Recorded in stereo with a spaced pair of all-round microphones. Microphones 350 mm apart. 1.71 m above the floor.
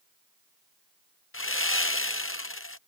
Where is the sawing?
35° left (ahead or behind).